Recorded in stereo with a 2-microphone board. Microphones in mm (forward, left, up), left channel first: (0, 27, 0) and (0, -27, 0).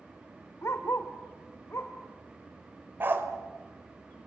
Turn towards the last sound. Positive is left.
turn(degrees=-40)  # may be behind; listen again after turning